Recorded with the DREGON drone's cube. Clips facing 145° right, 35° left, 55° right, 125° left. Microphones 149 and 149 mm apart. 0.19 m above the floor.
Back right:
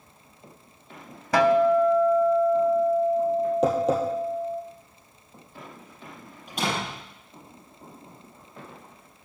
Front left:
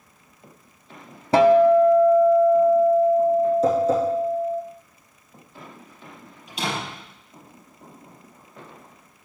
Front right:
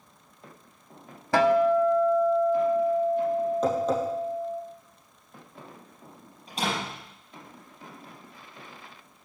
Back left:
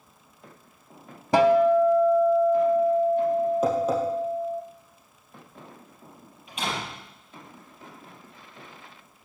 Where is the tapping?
155° right, 2.5 m.